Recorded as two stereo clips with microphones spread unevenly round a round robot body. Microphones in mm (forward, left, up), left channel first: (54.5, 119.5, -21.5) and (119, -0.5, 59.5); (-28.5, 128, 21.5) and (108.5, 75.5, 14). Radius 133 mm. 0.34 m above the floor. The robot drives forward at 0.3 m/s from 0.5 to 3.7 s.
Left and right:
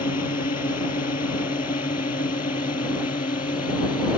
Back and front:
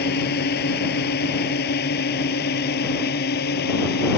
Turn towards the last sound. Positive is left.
turn(degrees=180)